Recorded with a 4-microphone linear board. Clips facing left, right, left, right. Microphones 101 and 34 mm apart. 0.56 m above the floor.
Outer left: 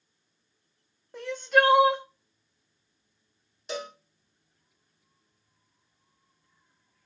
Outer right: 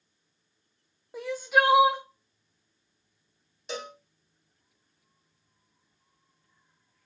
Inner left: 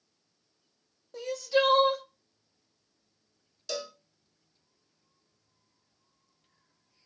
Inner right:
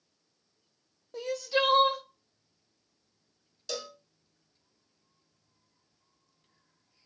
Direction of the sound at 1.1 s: 5° right (ahead or behind).